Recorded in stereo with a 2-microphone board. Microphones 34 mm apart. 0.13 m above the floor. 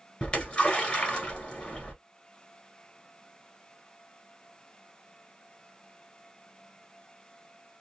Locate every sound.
0.2 s a splash: 30° left (ahead or behind), 1.6 m